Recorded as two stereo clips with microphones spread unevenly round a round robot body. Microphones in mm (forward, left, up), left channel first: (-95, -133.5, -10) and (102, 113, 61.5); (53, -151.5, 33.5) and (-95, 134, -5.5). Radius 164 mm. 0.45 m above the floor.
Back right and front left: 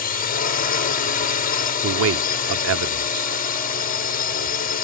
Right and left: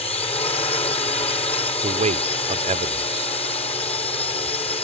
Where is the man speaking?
75° left.